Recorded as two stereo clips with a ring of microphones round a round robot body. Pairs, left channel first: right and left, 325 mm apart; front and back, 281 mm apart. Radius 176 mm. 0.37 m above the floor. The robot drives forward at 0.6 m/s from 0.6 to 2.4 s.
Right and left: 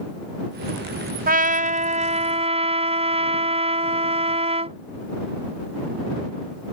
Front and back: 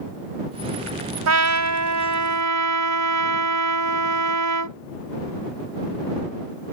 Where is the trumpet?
155° left; by 4.8 s 165° left.